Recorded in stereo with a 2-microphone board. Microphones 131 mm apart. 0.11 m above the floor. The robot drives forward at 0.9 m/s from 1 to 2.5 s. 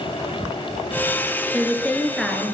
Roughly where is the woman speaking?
Centre.